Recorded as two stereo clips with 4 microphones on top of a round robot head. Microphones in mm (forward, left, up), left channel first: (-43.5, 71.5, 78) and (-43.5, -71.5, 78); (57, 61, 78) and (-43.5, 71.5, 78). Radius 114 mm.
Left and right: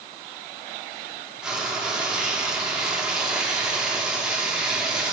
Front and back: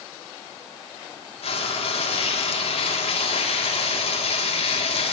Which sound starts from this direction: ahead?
Frying, at 1.4 s.